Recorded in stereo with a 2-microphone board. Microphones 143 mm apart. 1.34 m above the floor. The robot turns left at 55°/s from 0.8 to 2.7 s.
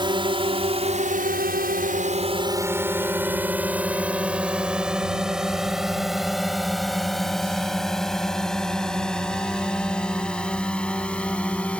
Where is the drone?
35° right (ahead or behind); by 11.8 s 10° left (ahead or behind).